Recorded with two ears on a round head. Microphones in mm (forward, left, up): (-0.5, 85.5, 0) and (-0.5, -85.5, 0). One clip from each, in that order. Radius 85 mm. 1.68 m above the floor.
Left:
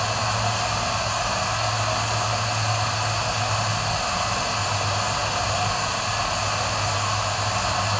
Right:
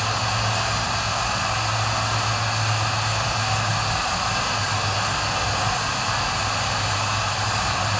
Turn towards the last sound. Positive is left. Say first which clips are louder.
# even
turn(degrees=25)  # may be behind; listen again after turning